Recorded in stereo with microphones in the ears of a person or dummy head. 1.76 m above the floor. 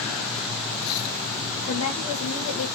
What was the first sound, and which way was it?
A woman speaking, 70° left (ahead or behind).